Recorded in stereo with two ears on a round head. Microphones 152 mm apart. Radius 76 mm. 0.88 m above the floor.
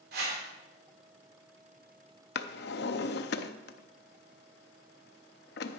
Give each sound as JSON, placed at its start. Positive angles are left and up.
{"t": 0.1, "sound": "a whoosh", "side_deg": -60, "distance_m": 3.0}
{"t": 2.4, "sound": "a drawer", "side_deg": 70, "distance_m": 0.7}